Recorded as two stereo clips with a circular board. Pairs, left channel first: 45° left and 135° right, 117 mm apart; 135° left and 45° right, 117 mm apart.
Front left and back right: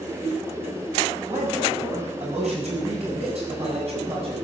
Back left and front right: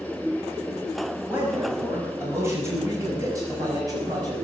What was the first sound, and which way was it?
A man speaking, 120° right.